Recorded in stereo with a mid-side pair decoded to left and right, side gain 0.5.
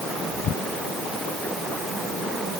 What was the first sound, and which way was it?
Only background noise.